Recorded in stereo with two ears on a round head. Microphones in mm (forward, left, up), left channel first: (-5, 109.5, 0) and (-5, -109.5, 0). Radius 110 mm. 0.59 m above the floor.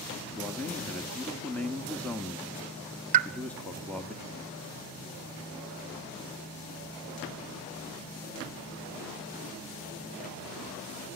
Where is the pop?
30° right (ahead or behind), 0.8 m.